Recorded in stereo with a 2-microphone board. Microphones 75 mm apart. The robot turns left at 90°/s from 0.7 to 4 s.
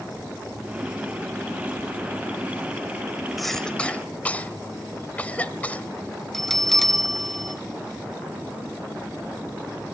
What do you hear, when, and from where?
3.4 s a cough: centre (ahead or behind), 0.9 m; by 5.9 s 20° left (ahead or behind), 0.9 m
6.3 s a bell: 5° left (ahead or behind), 1.2 m